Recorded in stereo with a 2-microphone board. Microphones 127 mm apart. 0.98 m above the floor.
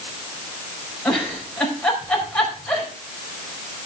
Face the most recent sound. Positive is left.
turn(degrees=5)  # may be behind; listen again after turning